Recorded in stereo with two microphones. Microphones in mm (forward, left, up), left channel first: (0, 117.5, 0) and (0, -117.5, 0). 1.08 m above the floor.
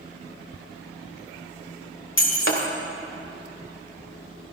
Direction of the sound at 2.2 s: 60° left (ahead or behind).